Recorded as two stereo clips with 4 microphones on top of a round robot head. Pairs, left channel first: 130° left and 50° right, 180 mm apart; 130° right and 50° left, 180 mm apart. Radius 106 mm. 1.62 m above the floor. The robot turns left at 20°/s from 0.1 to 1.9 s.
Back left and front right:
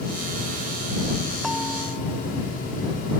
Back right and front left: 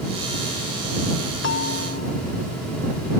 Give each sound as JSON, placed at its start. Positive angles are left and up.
{"t": 1.4, "sound": "a bell", "azimuth_deg": -140}